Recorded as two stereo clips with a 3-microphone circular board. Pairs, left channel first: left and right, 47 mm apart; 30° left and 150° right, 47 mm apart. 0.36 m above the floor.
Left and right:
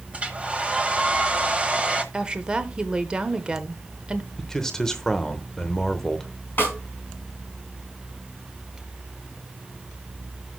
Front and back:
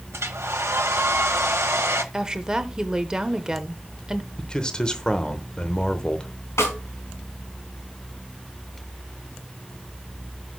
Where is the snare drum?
40° left, 4 m.